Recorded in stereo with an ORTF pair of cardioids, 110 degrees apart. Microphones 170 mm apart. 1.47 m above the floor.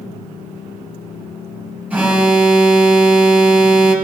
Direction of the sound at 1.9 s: 10° right.